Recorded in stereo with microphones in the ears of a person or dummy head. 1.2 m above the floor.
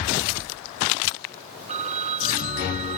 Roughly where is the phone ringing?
Right.